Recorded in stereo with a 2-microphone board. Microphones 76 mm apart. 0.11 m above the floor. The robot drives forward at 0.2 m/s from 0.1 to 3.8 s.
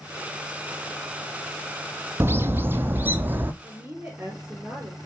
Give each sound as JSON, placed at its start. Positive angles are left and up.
{"t": 2.2, "sound": "a bird", "side_deg": -30, "distance_m": 0.9}
{"t": 3.6, "sound": "a woman speaking", "side_deg": -20, "distance_m": 2.0}